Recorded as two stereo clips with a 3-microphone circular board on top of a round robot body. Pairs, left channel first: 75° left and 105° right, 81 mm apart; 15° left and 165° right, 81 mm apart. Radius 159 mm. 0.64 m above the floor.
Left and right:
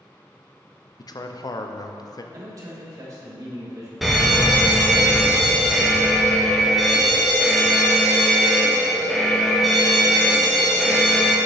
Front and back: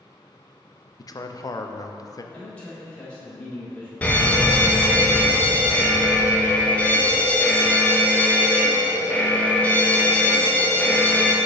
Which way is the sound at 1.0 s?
50° left.